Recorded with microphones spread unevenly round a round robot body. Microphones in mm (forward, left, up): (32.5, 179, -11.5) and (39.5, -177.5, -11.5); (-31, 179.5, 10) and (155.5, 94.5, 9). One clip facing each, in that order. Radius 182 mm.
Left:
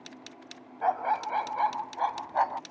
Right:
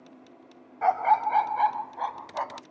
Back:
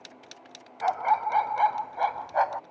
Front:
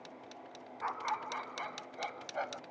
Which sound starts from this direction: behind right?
A dog barking, at 0.8 s.